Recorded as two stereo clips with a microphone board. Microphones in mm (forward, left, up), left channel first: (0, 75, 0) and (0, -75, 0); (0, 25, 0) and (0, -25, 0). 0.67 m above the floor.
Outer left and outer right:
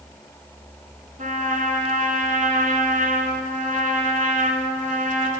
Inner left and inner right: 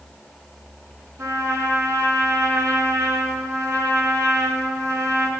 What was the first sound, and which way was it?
A trumpet, 70° right (ahead or behind).